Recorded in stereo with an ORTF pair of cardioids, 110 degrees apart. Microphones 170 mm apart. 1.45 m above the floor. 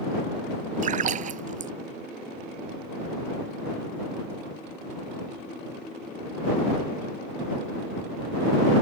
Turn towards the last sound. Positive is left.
turn(degrees=-50)